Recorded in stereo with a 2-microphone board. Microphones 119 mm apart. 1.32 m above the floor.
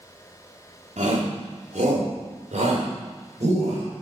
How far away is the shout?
About 3 m.